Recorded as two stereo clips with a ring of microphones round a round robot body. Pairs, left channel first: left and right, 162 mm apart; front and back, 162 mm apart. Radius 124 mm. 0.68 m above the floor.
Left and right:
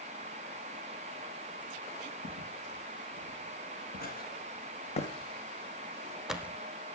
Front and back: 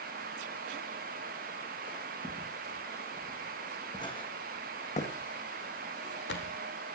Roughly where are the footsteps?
Left.